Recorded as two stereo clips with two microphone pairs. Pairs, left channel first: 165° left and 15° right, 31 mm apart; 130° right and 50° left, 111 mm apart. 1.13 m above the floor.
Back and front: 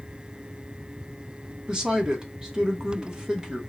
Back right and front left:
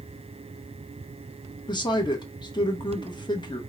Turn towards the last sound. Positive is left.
turn(degrees=-80)